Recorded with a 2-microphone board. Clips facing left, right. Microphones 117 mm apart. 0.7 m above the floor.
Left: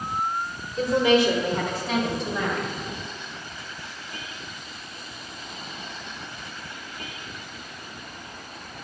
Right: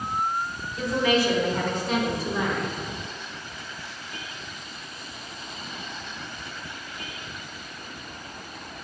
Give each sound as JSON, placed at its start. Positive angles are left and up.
{"t": 0.8, "sound": "a woman speaking", "side_deg": 35, "distance_m": 1.7}